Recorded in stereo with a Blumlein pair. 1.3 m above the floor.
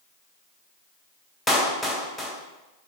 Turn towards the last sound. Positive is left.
turn(degrees=5)